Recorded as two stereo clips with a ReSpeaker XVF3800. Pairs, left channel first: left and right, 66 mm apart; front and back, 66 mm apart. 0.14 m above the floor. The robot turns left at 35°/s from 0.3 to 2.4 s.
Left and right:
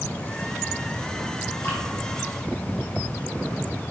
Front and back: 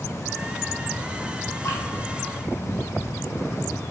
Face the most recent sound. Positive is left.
turn(degrees=15)